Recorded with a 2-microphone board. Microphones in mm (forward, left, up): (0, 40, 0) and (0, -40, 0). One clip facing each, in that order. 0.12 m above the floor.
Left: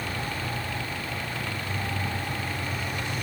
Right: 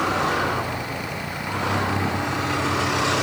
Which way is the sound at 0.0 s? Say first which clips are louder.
Right 11 dB; 90° right.